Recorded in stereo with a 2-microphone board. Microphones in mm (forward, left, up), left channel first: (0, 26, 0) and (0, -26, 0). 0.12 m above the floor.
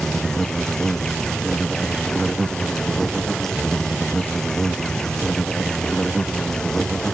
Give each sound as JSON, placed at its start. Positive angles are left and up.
{"t": 0.0, "sound": "an insect", "side_deg": 10}